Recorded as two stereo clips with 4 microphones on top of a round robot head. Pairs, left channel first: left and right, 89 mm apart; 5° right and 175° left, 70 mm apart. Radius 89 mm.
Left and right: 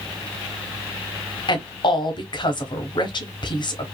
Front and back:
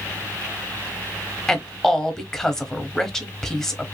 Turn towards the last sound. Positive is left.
turn(degrees=80)